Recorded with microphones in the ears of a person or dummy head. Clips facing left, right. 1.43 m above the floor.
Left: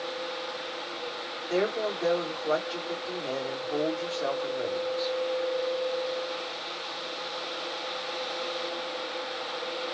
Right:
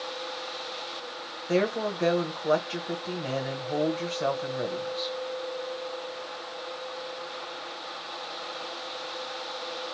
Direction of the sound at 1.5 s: 45° right (ahead or behind).